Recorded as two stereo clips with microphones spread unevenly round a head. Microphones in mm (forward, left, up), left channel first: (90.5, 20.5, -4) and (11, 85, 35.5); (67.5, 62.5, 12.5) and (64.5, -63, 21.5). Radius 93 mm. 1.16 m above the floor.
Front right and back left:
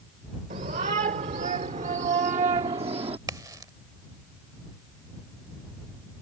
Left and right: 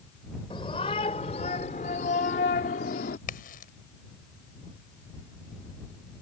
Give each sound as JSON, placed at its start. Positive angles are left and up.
{"t": 0.5, "sound": "a shout", "azimuth_deg": 155}
{"t": 3.3, "sound": "a crack", "azimuth_deg": 90}